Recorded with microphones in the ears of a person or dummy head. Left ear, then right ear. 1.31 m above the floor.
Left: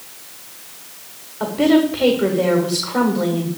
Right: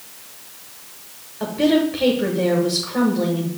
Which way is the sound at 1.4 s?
15° left (ahead or behind).